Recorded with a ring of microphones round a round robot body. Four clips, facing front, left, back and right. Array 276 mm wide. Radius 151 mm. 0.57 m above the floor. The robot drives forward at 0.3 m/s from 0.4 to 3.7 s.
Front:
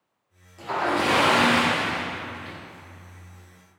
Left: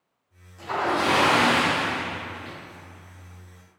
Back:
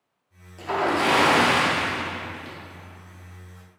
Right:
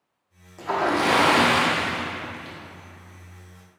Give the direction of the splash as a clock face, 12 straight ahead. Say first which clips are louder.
Right 2 dB, back 1 dB; 4 o'clock.